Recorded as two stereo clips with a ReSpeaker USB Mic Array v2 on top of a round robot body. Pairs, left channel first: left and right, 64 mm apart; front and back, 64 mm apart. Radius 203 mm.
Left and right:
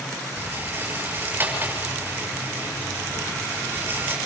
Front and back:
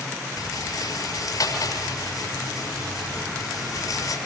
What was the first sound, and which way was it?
A rattle, 30° right.